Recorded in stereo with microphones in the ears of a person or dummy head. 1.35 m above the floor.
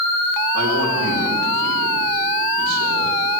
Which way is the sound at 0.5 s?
90° right.